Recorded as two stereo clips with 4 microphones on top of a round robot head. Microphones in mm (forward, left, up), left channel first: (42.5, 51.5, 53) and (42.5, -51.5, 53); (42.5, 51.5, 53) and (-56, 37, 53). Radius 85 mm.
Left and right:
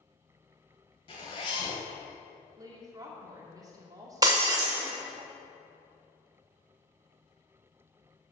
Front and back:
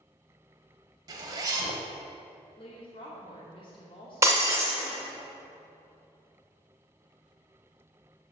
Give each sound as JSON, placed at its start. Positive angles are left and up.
{"t": 1.1, "sound": "a zipper", "azimuth_deg": 145, "distance_m": 0.9}
{"t": 2.6, "sound": "a woman speaking", "azimuth_deg": -35, "distance_m": 1.7}
{"t": 4.2, "sound": "breaking glass", "azimuth_deg": -120, "distance_m": 0.5}